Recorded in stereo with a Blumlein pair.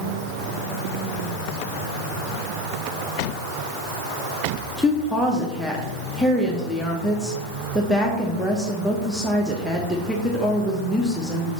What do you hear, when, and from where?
4.8 s a woman speaking: straight ahead, 0.9 m